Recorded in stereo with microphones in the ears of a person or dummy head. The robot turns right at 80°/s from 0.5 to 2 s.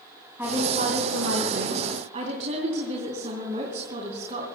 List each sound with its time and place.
0.4 s a woman speaking: 160° right, 3 m; by 4.5 s 40° right, 3 m